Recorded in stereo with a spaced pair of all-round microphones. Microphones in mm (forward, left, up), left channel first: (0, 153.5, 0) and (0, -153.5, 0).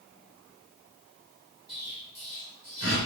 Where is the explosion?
35° right (ahead or behind), 3.5 m.